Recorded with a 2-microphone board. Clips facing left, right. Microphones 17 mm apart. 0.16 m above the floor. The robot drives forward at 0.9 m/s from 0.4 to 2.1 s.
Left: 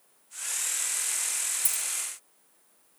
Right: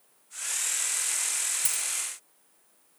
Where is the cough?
No cough in this recording.